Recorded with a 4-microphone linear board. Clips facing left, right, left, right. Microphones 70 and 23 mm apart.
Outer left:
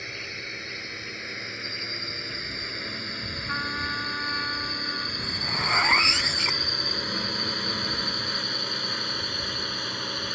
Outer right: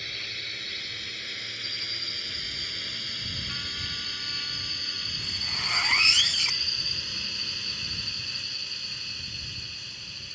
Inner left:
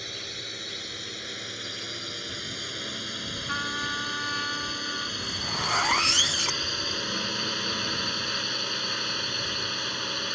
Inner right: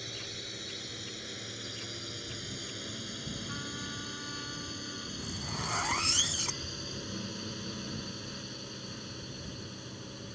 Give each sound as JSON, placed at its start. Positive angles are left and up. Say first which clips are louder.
{"t": 0.0, "sound": "a drone", "louder": "outer left 3 dB, inner left 5 dB", "side_deg": 20}
{"t": 3.5, "sound": "a trumpet", "louder": "outer left 14 dB, inner left 10 dB", "side_deg": 50}
{"t": 5.2, "sound": "a zipper", "louder": "outer left 4 dB, inner left 7 dB", "side_deg": 35}